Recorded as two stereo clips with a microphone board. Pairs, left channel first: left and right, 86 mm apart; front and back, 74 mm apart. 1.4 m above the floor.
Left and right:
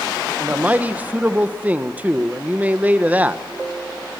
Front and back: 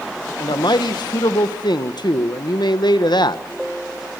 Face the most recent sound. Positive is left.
turn(degrees=-20)